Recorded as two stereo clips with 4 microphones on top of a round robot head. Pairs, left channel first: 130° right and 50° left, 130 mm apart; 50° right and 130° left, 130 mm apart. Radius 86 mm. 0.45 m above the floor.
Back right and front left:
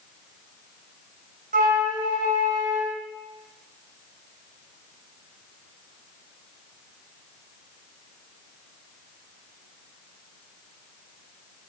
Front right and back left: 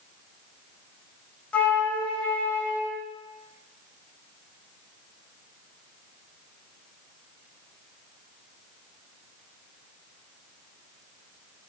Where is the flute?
30° left, 1.8 m.